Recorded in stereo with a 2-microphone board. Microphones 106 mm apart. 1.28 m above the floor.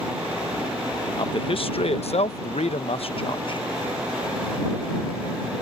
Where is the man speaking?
50° left (ahead or behind).